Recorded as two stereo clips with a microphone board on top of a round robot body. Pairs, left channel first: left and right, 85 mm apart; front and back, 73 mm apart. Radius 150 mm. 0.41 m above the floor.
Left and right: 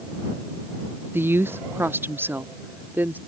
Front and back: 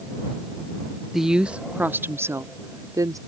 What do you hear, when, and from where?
1.1 s a woman speaking: 95° right; by 3.2 s 155° right